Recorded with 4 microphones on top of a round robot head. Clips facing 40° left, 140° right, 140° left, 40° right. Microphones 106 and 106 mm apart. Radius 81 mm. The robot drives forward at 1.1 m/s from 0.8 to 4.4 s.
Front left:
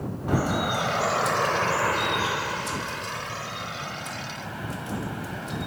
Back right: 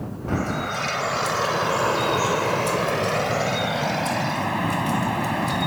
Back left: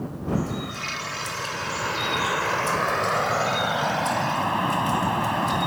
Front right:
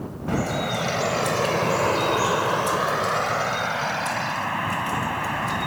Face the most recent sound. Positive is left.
turn(degrees=-155)